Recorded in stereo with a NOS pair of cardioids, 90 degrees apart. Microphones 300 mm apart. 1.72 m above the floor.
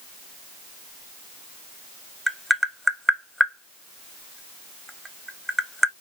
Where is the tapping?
Straight ahead, 0.6 m.